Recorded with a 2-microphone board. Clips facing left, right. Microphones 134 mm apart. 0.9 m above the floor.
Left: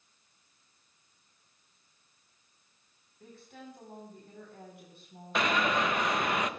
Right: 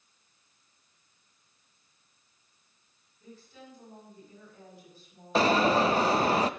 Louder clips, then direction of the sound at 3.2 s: Left 1 dB; 65° left (ahead or behind).